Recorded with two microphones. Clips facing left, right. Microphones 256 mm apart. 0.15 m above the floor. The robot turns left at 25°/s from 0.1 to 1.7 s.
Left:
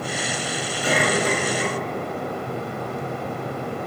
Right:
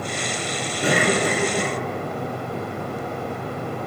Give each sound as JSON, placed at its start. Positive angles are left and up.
{"t": 0.8, "sound": "a cough", "side_deg": -60, "distance_m": 2.5}